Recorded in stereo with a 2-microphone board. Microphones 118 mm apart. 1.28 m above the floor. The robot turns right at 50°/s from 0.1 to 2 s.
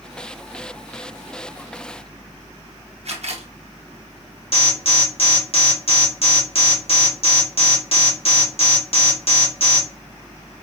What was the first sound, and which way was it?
A camera shutter, 60° right (ahead or behind).